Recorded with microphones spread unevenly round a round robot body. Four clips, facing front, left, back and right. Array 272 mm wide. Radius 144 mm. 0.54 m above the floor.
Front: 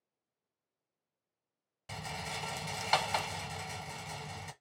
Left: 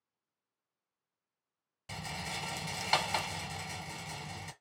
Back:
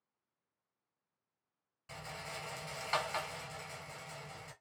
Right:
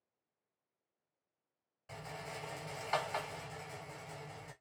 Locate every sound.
1.9 s a rattle: 55° left, 1.0 m